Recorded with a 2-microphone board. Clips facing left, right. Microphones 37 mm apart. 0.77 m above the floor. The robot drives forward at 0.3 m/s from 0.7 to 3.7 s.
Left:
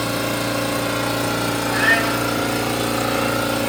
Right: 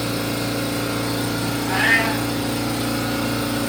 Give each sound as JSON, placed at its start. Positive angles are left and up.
{"t": 0.0, "sound": "an engine running", "side_deg": 65, "distance_m": 0.9}
{"t": 1.7, "sound": "a cat meowing", "side_deg": -55, "distance_m": 2.0}